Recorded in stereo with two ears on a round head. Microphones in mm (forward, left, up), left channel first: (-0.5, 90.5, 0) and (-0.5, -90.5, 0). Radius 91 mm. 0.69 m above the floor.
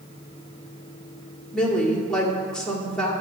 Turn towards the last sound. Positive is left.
turn(degrees=5)  # may be behind; listen again after turning